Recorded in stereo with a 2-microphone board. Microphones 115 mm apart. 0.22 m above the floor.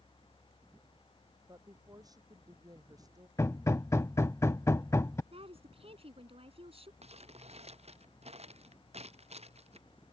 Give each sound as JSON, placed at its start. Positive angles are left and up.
{"t": 1.5, "sound": "a woman speaking", "side_deg": -30}
{"t": 3.4, "sound": "hammering", "side_deg": 25}
{"t": 5.3, "sound": "a woman speaking", "side_deg": -55}
{"t": 7.0, "sound": "crumpling", "side_deg": -65}